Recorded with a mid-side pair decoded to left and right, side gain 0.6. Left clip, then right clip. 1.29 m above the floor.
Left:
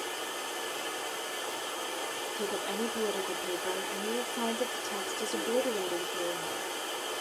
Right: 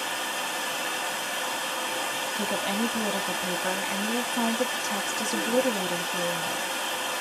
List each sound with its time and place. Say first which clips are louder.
0.0 s running water: right 6 dB; 65° right, 1.1 m
2.4 s a woman speaking: right 4 dB; 70° right, 1.1 m